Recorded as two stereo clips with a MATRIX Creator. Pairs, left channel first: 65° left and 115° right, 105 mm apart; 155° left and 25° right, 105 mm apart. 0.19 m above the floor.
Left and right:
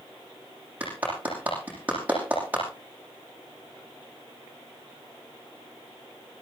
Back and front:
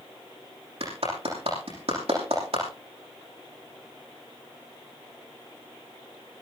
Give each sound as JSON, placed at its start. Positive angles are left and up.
{"t": 0.8, "sound": "a clap", "azimuth_deg": -40, "distance_m": 8.5}